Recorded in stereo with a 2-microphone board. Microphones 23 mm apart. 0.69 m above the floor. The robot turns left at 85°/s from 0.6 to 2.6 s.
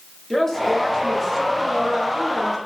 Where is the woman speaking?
15° left (ahead or behind), 0.8 m; by 2.6 s 20° right (ahead or behind), 0.8 m.